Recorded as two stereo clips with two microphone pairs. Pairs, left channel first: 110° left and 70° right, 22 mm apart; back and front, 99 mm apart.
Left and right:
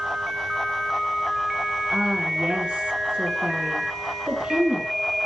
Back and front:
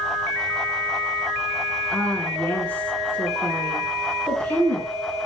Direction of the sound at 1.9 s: 110° right.